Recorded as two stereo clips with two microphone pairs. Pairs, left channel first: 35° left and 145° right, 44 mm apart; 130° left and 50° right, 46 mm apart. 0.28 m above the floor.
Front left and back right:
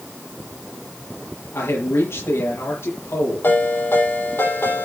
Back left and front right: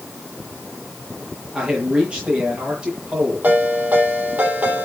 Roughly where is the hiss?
No hiss in this recording.